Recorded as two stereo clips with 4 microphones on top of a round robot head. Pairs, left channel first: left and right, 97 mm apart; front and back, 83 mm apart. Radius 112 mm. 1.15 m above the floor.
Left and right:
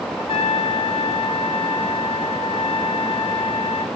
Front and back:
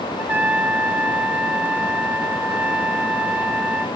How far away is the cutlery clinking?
I don't hear cutlery clinking.